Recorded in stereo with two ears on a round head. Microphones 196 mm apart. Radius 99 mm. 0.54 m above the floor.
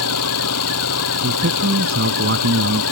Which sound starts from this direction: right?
A man speaking, at 1.2 s.